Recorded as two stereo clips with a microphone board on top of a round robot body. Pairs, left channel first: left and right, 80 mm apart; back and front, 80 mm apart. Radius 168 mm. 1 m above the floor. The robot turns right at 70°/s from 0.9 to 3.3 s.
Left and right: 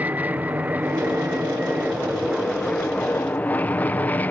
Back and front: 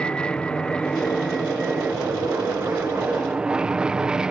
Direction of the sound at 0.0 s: 120° right.